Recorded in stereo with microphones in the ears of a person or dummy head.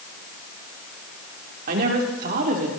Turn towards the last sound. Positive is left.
turn(degrees=-50)  # may be behind; listen again after turning